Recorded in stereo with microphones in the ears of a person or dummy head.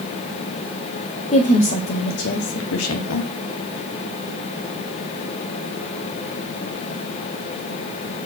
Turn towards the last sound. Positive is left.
turn(degrees=85)